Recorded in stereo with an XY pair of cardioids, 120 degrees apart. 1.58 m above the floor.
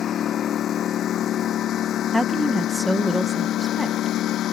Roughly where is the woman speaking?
Ahead.